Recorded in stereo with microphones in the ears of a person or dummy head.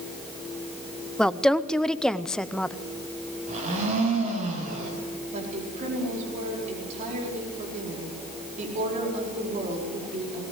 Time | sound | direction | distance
1.2 | a woman speaking | 5° left (ahead or behind) | 0.7 m
3.5 | a blender | 40° right (ahead or behind) | 6.5 m
5.3 | a woman speaking | 40° right (ahead or behind) | 4.5 m